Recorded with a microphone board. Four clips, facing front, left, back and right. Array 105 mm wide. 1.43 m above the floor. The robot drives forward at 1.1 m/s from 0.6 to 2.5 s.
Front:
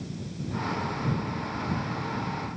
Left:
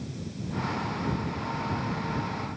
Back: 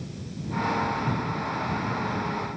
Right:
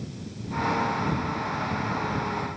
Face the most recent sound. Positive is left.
No sound to turn to.